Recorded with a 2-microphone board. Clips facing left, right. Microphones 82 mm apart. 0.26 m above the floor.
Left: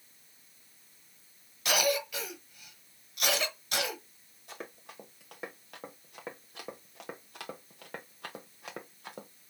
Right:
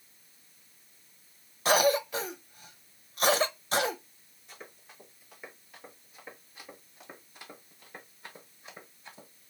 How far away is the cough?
About 1.1 m.